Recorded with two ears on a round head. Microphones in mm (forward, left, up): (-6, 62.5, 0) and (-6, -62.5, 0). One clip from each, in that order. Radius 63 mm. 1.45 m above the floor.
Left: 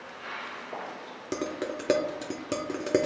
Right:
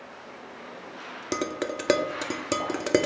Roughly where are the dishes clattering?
Right.